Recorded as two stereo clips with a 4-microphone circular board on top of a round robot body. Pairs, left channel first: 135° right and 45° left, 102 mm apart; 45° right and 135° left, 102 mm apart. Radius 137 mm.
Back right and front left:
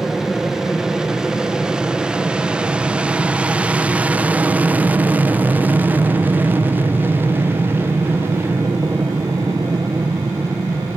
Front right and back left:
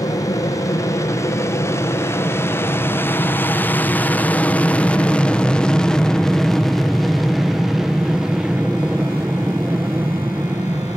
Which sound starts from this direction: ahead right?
An aircraft, at 0.0 s.